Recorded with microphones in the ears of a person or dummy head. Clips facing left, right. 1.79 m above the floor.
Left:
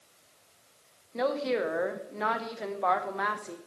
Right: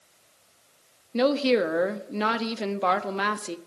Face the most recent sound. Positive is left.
turn(degrees=-40)  # may be behind; listen again after turning